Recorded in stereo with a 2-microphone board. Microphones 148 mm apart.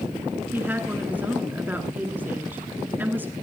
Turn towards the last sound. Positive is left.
turn(degrees=-15)  # may be behind; listen again after turning